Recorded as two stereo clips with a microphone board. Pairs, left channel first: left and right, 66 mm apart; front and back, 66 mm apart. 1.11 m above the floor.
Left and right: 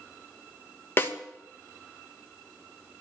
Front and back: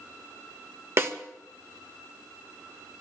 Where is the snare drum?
140° left, 1.2 m.